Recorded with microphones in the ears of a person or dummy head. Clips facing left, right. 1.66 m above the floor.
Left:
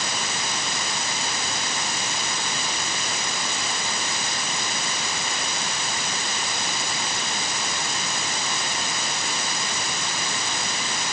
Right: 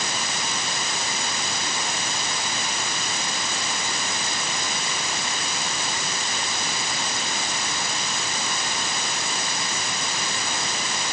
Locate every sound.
Only background noise.